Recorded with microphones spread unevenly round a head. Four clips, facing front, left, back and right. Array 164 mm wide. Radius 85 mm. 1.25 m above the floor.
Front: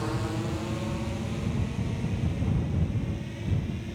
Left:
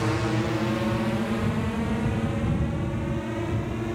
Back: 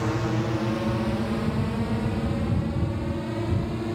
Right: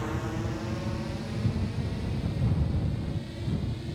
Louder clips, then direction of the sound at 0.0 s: Left 7 dB, back 5 dB; 115° left.